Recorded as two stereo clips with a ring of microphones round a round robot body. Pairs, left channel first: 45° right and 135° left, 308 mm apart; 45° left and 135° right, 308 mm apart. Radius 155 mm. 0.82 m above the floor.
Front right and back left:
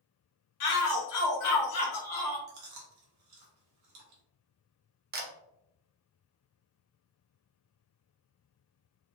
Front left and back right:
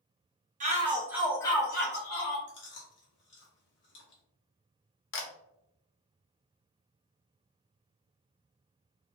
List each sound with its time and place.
0.6 s a shout: 70° right, 1.2 m; by 2.4 s 25° left, 1.0 m
2.5 s chewing: 100° left, 1.1 m
5.1 s a camera shutter: 85° left, 0.7 m